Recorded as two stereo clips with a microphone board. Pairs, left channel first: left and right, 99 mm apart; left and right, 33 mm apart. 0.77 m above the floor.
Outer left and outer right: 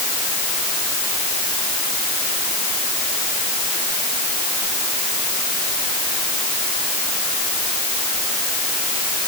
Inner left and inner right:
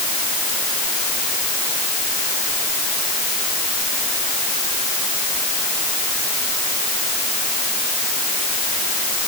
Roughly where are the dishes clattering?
No dishes clattering in this recording.